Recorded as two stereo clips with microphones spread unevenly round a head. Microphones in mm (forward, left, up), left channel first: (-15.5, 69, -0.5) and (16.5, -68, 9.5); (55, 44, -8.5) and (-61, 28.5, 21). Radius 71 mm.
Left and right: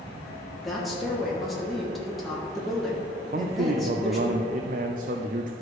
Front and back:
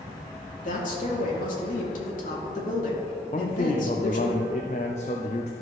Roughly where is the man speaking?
Ahead right.